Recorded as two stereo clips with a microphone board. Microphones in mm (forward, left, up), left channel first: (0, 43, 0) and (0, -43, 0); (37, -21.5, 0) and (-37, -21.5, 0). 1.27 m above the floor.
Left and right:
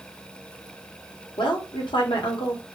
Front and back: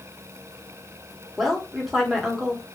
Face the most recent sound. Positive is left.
turn(degrees=95)